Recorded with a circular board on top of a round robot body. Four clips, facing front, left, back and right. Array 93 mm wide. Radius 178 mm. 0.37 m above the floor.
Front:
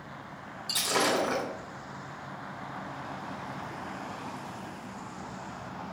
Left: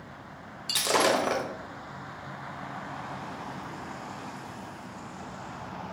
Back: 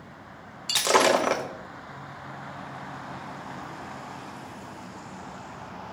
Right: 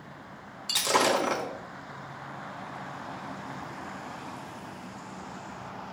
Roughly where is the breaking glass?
Behind.